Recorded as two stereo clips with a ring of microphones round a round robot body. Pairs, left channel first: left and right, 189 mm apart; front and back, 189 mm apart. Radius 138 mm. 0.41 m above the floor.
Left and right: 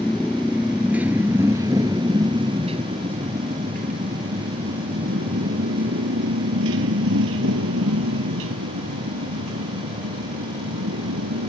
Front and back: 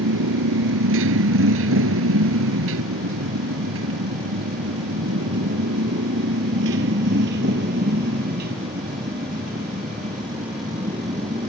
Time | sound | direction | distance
0.0 | a motorcycle | 175° left | ?